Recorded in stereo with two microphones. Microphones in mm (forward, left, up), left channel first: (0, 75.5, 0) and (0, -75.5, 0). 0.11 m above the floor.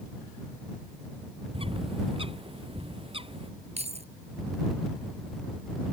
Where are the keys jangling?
45° right (ahead or behind).